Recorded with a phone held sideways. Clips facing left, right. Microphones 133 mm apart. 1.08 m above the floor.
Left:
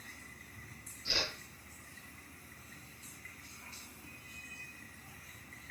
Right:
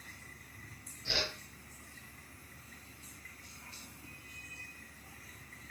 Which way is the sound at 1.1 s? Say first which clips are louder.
Right 2 dB; 65° right (ahead or behind).